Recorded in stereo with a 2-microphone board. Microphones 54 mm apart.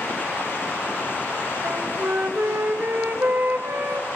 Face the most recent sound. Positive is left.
turn(degrees=-40)  # may be behind; listen again after turning